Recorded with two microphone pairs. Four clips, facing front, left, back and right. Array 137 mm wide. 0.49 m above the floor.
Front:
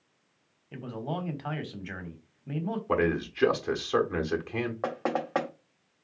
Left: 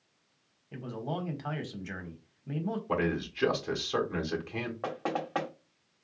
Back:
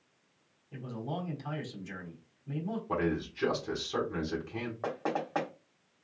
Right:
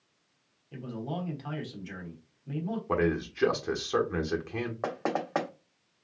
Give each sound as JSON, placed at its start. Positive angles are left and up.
{"t": 0.7, "sound": "a man speaking", "azimuth_deg": 25, "distance_m": 1.2}
{"t": 2.9, "sound": "a man speaking", "azimuth_deg": -35, "distance_m": 1.2}
{"t": 4.8, "sound": "knocking", "azimuth_deg": -40, "distance_m": 0.9}